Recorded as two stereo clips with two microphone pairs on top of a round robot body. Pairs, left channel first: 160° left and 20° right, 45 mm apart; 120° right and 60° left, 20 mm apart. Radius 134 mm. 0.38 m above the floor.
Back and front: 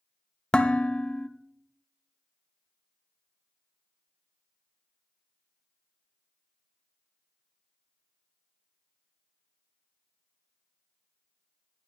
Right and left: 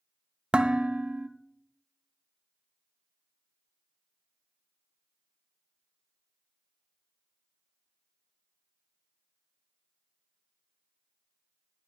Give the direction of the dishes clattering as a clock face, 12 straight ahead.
9 o'clock.